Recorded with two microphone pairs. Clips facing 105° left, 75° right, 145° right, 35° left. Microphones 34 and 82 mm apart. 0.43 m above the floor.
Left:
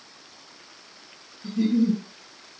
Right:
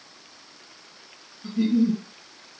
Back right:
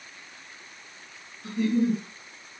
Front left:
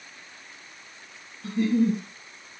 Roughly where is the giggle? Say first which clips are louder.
Even, front left 2 dB; ahead.